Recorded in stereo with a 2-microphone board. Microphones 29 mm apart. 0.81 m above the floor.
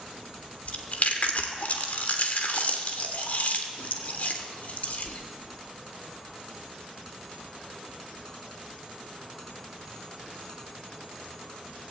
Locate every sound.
0.7 s chewing: 55° left (ahead or behind), 1.2 m